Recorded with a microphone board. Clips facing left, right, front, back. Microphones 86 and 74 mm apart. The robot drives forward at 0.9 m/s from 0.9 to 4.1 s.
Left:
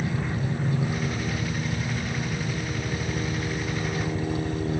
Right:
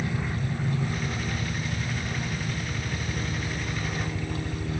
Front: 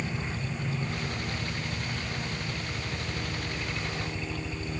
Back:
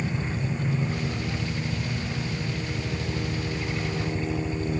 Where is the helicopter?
120° left; by 4.8 s 125° left.